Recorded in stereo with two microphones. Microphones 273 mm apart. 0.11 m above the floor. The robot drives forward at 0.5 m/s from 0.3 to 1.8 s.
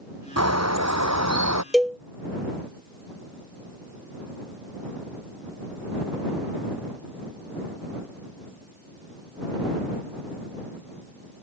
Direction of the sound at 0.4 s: 70° right (ahead or behind).